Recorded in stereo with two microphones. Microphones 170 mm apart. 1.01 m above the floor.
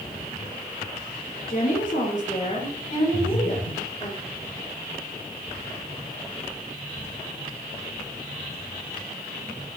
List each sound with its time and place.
1.5 s a woman speaking: 60° left (ahead or behind), 2 m; by 4.1 s 40° left (ahead or behind), 3.5 m
3.1 s breathing: 70° left (ahead or behind), 3.5 m